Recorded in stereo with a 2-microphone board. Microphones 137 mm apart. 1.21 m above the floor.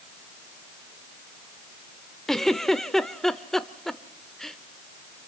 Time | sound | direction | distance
2.3 | a giggle | centre (ahead or behind) | 0.9 m